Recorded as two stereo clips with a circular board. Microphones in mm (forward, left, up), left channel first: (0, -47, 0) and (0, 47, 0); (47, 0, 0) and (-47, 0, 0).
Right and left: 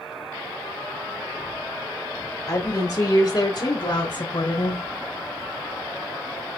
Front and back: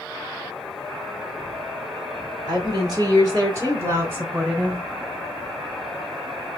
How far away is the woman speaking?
About 3 m.